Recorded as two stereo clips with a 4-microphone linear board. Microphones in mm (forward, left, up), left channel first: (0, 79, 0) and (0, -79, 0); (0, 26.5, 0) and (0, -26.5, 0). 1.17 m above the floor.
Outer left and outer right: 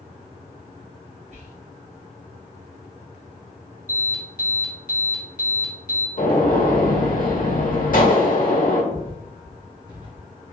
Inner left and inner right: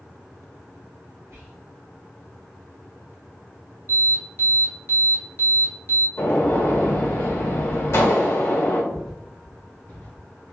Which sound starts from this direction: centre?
Footsteps, at 8.9 s.